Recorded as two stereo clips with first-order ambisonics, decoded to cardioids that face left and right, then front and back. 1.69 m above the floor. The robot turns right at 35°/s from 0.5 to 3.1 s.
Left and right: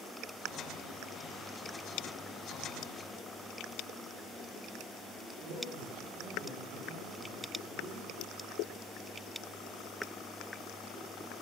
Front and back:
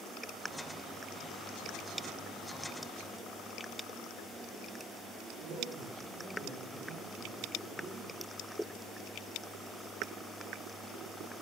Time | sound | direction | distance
5.4 | a man speaking | 130° right | 5.5 m